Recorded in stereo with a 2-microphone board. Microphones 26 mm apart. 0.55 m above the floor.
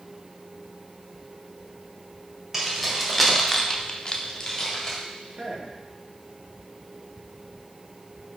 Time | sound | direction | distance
2.5 | keys jangling | 10° right (ahead or behind) | 2 m
5.3 | a man speaking | 50° right (ahead or behind) | 1.6 m